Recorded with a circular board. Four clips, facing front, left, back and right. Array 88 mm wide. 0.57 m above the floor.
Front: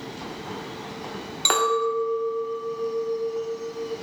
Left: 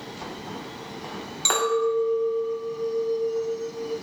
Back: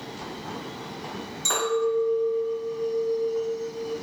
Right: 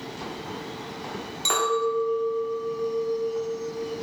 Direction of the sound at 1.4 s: 15° left.